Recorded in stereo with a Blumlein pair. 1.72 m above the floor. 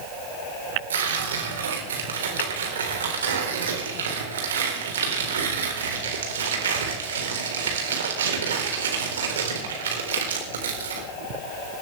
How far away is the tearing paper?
About 4 m.